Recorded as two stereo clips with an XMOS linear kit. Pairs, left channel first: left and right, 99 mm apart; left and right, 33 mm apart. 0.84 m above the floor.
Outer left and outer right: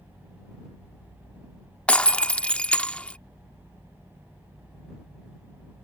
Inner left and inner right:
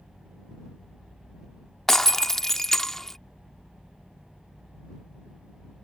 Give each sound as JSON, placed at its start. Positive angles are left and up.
{"t": 1.9, "sound": "breaking glass", "side_deg": 10}